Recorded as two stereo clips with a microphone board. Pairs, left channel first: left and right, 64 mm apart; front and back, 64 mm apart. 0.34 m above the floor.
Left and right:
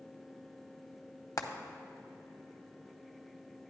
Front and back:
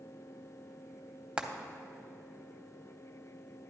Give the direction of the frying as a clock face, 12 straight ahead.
8 o'clock.